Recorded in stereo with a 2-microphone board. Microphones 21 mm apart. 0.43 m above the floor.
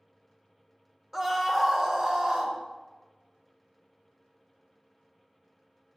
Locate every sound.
1.1 s a scream: 15° right (ahead or behind), 1.1 m; by 2.6 s 45° right (ahead or behind), 1.7 m